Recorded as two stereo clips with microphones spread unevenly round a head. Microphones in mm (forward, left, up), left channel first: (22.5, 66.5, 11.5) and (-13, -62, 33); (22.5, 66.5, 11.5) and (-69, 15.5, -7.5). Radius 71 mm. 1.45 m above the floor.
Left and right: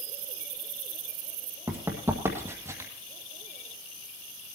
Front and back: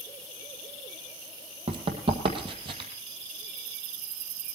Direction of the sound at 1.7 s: 170° right.